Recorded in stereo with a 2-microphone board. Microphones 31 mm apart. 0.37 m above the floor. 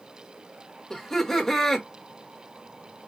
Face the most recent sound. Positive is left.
turn(degrees=15)  # may be behind; listen again after turning